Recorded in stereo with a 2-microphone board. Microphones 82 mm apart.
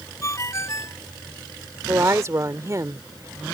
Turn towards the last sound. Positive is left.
turn(degrees=-35)  # may be behind; listen again after turning